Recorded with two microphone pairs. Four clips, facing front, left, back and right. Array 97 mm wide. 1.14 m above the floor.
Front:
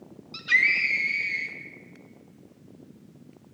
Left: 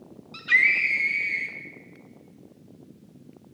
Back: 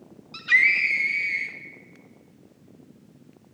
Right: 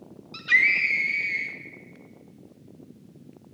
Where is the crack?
No crack in this recording.